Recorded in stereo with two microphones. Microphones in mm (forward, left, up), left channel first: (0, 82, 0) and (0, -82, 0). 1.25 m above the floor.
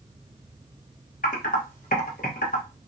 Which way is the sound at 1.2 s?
55° left (ahead or behind).